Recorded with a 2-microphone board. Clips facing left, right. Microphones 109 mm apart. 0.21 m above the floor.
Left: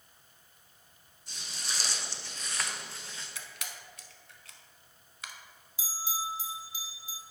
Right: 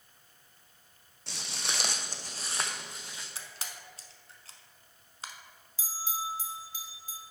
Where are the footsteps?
80° right, 1.0 m; by 3.2 s 15° right (ahead or behind), 1.6 m.